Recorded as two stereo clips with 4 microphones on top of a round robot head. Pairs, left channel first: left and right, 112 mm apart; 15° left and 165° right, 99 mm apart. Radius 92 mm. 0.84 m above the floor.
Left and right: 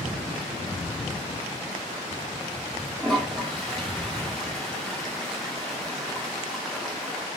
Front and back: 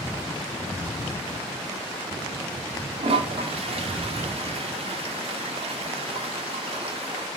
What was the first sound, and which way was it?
A toilet flushing, straight behind.